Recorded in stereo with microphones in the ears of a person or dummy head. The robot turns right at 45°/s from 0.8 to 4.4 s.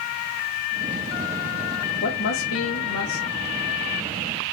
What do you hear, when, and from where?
2.0 s a woman speaking: 55° left, 1.5 m; by 3.3 s 110° left, 1.5 m